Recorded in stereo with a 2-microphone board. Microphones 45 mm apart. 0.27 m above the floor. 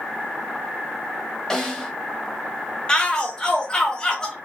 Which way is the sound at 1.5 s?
15° left (ahead or behind).